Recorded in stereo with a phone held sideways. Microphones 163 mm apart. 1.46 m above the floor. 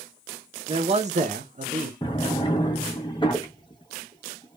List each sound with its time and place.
0.7 s a man speaking: 30° right (ahead or behind), 0.7 m; by 1.9 s 35° right (ahead or behind), 0.7 m
2.0 s a drawer: 30° left (ahead or behind), 0.7 m